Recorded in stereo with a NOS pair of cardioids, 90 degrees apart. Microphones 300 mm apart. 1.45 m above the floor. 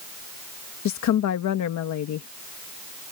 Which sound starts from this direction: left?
A woman speaking, at 0.8 s.